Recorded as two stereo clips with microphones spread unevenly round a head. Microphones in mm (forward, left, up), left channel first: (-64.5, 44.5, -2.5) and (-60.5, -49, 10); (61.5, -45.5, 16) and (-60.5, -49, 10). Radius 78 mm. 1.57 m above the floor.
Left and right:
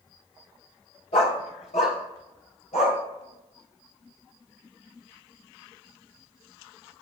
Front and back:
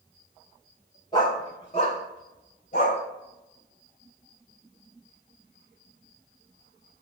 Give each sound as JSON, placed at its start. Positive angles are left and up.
{"t": 1.1, "sound": "a dog barking", "azimuth_deg": 65, "distance_m": 2.0}